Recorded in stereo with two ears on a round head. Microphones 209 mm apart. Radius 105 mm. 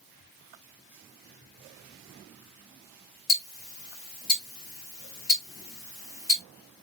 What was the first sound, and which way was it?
Ticking, 35° left (ahead or behind).